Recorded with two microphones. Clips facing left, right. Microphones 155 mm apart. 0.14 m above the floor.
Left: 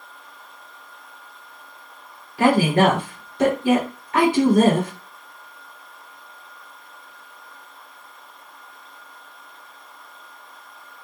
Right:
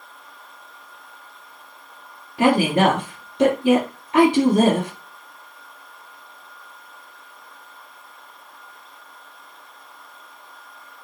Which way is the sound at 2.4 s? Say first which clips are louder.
Even; 20° right (ahead or behind).